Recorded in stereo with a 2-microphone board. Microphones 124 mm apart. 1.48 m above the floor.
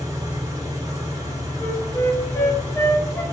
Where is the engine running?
25° right (ahead or behind), 1.1 m.